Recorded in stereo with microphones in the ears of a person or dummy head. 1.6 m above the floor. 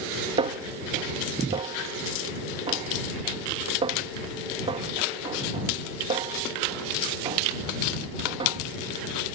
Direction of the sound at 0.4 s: 30° right (ahead or behind).